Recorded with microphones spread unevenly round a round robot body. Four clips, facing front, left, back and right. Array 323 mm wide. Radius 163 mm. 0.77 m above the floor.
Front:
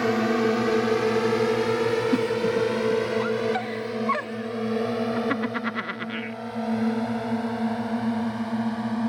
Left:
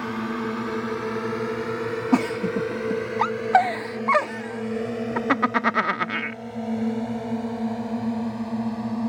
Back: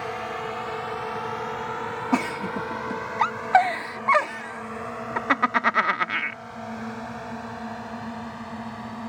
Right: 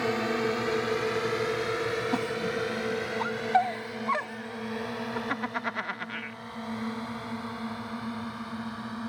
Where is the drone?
5° left; by 9.1 s 45° left.